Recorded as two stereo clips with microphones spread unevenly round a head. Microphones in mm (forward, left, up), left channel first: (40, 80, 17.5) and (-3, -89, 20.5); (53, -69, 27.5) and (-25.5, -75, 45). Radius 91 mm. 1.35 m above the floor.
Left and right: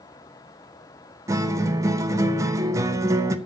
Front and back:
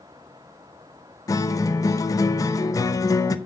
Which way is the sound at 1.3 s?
40° right.